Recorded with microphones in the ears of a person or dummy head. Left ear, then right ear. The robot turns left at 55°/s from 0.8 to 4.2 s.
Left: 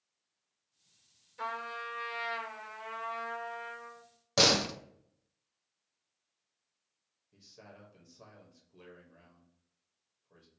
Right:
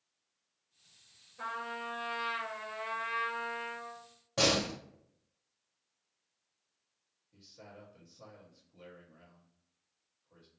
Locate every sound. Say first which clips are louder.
1.4 s a trumpet: left 1 dB; 45° left, 0.9 m; by 4.0 s 100° right, 0.9 m
4.4 s a door slam: left 3 dB; 50° left (ahead or behind), 0.6 m
7.3 s a man speaking: right 1 dB; 75° left (ahead or behind), 1.3 m